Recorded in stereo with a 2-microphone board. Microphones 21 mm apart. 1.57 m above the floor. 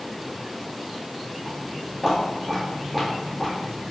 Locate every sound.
1.4 s footsteps: 20° left (ahead or behind), 1.6 m; by 3.9 s 10° right (ahead or behind), 1.7 m